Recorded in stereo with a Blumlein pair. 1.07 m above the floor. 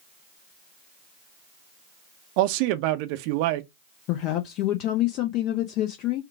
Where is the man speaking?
45° right, 0.6 m.